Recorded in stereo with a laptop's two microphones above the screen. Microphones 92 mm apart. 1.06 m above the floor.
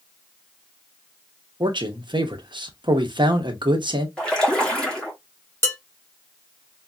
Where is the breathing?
No breathing in this recording.